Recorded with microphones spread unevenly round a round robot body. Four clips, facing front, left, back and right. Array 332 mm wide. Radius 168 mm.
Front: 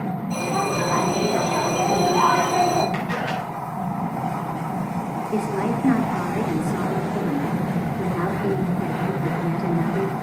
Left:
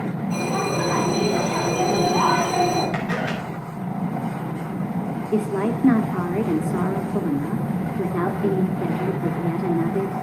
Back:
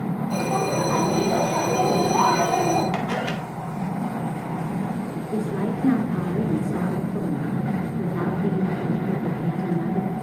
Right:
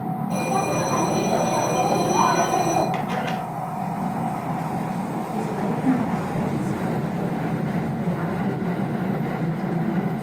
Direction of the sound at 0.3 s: 105° right.